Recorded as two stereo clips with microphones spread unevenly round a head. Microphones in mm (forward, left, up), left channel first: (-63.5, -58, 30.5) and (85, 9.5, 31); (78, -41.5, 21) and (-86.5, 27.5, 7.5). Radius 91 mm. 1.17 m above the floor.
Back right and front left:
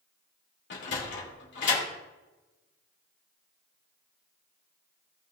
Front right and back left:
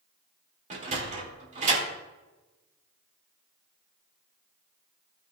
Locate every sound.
0.7 s a sliding door: 155° right, 2.5 m